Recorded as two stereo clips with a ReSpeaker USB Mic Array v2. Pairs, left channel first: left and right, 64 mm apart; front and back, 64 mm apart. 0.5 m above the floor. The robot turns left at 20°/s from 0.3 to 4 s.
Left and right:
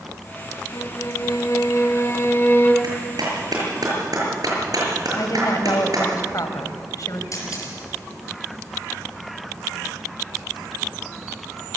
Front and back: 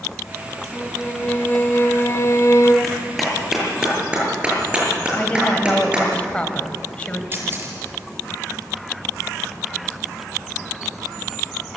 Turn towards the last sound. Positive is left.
turn(degrees=125)